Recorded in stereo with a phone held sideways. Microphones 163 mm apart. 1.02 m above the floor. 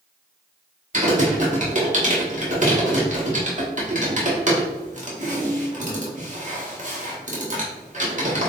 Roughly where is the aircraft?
No aircraft in this recording.